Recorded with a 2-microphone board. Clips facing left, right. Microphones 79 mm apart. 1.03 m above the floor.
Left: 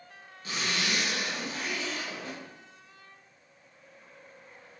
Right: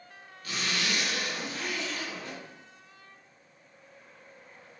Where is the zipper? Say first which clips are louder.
Even; 25° left (ahead or behind), 0.8 m.